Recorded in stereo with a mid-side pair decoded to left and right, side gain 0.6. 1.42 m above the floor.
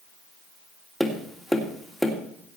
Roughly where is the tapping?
Ahead.